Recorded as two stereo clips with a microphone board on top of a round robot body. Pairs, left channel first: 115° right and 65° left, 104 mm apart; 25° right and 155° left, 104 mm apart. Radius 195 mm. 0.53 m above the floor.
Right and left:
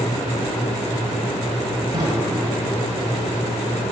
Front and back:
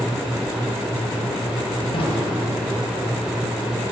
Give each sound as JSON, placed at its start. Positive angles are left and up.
{"t": 1.9, "sound": "a drawer", "azimuth_deg": 15, "distance_m": 1.5}